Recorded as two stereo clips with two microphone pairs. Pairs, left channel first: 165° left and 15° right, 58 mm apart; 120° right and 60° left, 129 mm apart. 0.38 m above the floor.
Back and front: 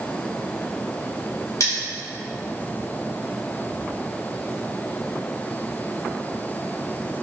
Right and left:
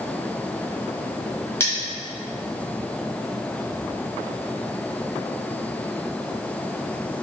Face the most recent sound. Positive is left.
turn(degrees=170)